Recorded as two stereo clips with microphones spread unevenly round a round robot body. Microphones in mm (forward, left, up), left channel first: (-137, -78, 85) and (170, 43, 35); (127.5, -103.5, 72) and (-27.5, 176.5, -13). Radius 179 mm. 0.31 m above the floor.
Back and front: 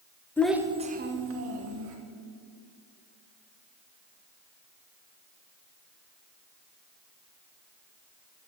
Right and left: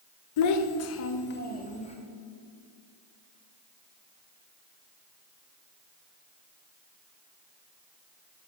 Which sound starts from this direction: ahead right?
A child speaking, at 0.4 s.